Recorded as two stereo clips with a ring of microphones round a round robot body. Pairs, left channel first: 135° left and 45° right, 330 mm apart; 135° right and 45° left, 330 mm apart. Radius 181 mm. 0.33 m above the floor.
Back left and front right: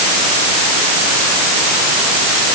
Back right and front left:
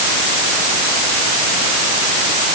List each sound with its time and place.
Only background noise.